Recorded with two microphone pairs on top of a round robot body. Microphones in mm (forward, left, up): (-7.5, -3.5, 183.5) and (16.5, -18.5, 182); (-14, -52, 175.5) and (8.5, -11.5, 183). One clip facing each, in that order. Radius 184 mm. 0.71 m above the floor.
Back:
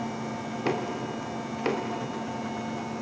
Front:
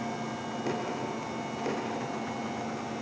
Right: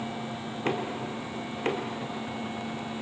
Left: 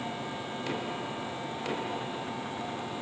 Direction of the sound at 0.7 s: 170° right.